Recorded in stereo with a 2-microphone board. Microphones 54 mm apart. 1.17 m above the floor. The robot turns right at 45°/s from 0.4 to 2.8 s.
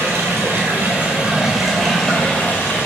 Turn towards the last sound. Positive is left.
turn(degrees=45)